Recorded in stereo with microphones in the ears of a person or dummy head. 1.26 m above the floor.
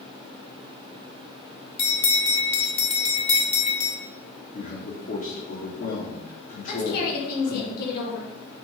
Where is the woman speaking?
60° left (ahead or behind), 2 m.